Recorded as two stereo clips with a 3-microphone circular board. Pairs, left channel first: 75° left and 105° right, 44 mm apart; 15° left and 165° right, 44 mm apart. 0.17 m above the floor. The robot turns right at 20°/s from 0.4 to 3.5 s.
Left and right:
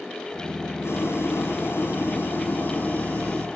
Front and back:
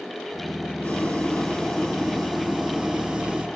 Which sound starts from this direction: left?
Boiling, at 0.8 s.